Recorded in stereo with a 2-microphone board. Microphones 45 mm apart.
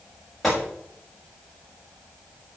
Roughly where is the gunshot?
Centre.